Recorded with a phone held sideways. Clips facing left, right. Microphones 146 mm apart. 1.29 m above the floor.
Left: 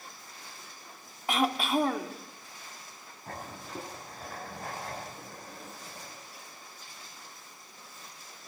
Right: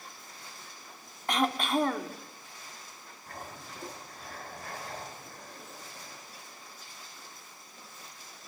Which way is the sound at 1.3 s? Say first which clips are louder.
Left 1 dB; 5° left (ahead or behind).